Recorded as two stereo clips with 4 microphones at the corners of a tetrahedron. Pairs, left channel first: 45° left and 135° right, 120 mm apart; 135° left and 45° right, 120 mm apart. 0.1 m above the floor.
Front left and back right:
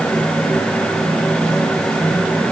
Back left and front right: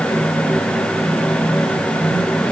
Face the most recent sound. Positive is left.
No sound to turn to.